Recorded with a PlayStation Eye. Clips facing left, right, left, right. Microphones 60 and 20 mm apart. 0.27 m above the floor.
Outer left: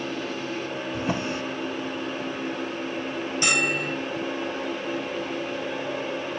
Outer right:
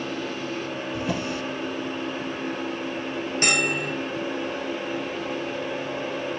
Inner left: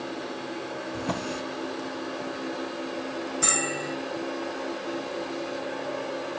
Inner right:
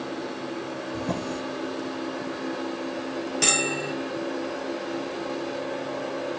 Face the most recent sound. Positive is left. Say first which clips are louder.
# even, inner right 4 dB
turn(degrees=-50)  # may be behind; listen again after turning